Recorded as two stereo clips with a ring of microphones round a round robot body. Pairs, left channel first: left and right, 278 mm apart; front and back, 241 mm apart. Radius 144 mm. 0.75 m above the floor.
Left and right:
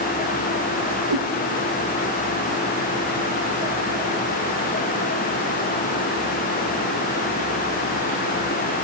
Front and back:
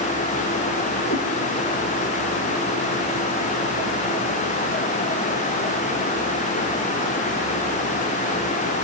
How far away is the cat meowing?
About 5.5 m.